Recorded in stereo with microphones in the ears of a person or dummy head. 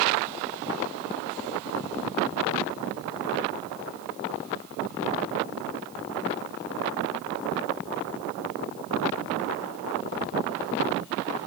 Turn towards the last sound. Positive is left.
No sound to turn to.